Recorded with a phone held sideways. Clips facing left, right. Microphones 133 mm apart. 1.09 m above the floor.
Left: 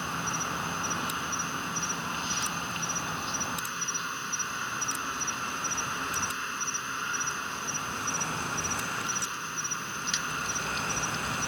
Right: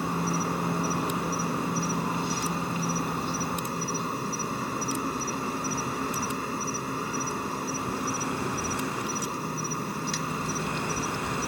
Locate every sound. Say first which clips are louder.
0.0 s an insect: right 7 dB; 45° right (ahead or behind)